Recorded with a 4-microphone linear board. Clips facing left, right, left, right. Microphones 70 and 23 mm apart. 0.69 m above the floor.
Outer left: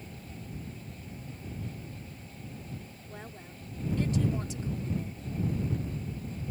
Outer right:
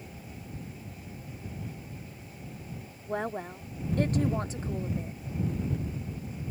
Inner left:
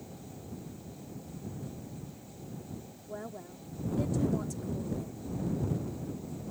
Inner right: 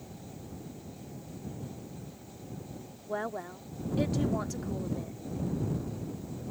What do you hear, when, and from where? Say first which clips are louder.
3.1 s a woman speaking: outer right 16 dB, inner right 8 dB; 65° right (ahead or behind); by 5.2 s 30° right (ahead or behind)